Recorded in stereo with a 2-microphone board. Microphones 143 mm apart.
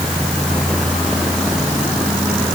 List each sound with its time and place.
Only background noise.